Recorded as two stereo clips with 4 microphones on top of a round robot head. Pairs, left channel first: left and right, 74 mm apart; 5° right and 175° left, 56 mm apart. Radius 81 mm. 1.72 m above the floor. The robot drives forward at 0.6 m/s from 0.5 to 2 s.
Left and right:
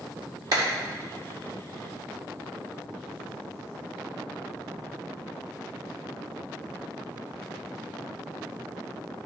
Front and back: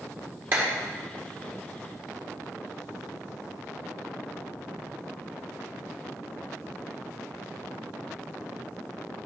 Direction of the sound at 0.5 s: 125° right.